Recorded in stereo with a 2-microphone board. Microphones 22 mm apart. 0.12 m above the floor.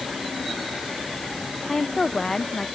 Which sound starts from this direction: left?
A woman speaking, at 1.7 s.